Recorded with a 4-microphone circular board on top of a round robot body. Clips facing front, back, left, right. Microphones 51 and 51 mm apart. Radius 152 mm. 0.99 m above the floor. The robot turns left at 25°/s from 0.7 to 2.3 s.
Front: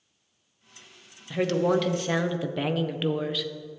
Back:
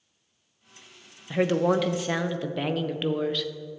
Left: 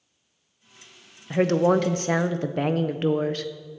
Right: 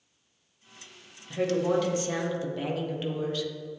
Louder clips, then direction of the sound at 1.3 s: Back 1 dB, left 6 dB; 110° left.